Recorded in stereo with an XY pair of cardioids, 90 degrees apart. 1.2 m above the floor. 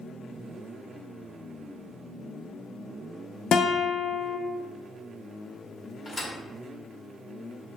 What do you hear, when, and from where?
3.5 s a guitar: 65° left, 0.5 m
6.0 s a thud: 25° left, 1.4 m